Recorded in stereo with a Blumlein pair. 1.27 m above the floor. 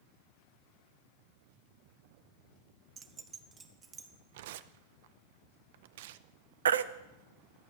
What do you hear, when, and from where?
3.0 s keys jangling: 25° right, 0.8 m; by 4.1 s 15° right, 1.7 m
4.3 s tearing paper: 55° right, 0.6 m
6.7 s a baby crying: 65° right, 0.7 m